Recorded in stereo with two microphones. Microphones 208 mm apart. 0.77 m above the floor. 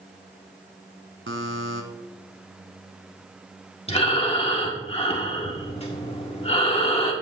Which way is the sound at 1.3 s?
70° right (ahead or behind).